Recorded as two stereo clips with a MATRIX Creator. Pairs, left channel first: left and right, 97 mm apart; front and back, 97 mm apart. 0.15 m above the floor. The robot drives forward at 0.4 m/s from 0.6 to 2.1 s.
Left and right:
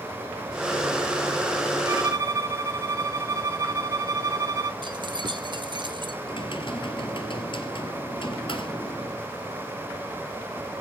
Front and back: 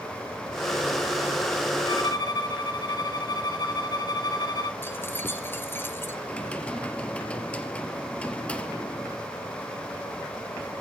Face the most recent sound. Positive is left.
turn(degrees=75)